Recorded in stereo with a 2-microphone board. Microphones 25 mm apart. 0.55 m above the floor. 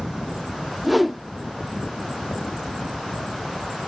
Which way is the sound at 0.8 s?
5° right (ahead or behind).